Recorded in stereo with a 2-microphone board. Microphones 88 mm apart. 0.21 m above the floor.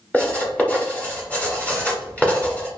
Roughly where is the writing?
Centre.